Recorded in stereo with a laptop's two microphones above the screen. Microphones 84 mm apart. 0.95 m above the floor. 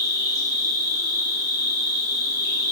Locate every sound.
0.0 s an insect: 45° right (ahead or behind), 3 m